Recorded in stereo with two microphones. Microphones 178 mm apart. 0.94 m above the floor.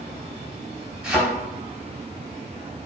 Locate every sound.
1.0 s a thud: 5° right (ahead or behind), 3 m